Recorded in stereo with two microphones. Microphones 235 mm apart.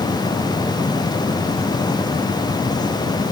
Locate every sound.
Only background noise.